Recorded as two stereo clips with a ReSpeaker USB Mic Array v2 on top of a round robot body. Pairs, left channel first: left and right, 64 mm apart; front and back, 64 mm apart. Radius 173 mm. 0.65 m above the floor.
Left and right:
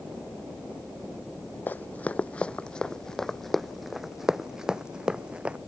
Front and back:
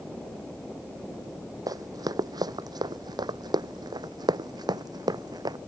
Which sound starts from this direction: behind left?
Running footsteps, at 1.7 s.